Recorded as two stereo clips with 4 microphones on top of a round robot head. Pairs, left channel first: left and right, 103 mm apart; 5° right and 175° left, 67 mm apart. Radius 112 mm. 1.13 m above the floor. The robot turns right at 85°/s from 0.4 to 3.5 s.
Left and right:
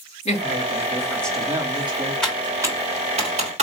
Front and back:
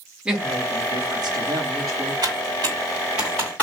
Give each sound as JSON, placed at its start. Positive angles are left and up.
{"t": 0.2, "sound": "a woman speaking", "azimuth_deg": 100, "distance_m": 1.5}
{"t": 2.2, "sound": "typing on a keyboard", "azimuth_deg": 175, "distance_m": 1.1}